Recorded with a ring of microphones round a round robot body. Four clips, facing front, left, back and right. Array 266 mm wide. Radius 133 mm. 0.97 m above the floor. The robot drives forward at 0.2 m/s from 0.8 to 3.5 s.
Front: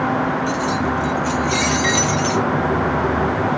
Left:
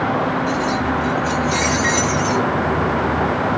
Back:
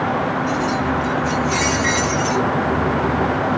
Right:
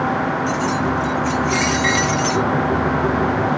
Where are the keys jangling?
40° right, 1.1 m; by 2.5 s 55° right, 0.9 m.